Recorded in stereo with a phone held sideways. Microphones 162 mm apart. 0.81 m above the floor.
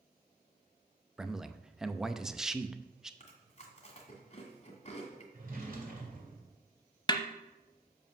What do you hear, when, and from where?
1.2 s a man speaking: 5° right (ahead or behind), 0.5 m
3.2 s chewing: 45° left (ahead or behind), 1.8 m
5.3 s a drawer: 65° right (ahead or behind), 2.5 m
7.1 s a snare drum: 25° left (ahead or behind), 0.6 m